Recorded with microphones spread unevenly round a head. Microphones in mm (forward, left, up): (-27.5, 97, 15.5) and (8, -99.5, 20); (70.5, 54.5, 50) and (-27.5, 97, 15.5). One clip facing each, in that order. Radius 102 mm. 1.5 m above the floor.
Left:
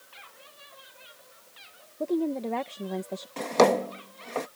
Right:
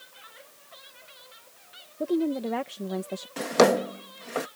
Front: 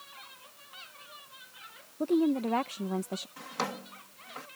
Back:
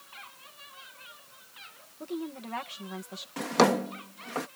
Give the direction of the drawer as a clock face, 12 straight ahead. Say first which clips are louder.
Right 1 dB, back 15 dB; 5 o'clock.